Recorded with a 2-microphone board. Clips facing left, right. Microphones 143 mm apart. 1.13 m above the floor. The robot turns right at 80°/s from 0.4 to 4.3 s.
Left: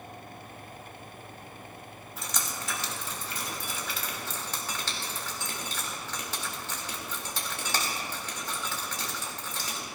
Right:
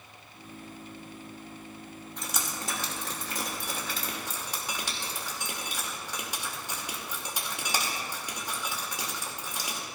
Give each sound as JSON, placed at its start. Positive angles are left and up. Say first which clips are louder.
{"t": 2.2, "sound": "dripping", "louder": "even", "side_deg": 5, "distance_m": 2.0}